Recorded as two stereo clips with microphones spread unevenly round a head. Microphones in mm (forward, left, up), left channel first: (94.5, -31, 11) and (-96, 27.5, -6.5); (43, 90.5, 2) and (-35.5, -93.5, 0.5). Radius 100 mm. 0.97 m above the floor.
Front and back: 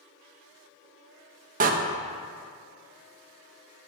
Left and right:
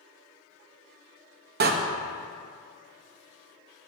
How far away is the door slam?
About 0.8 m.